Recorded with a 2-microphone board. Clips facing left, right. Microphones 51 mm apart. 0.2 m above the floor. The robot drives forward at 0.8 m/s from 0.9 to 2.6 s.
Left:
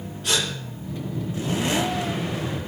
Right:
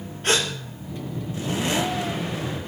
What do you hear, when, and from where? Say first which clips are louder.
0.2 s a gasp: right 3 dB; 45° right (ahead or behind), 4.5 m